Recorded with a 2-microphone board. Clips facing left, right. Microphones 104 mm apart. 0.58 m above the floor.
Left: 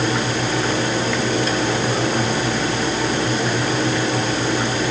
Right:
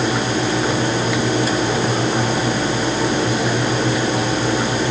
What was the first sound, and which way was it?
Only background noise.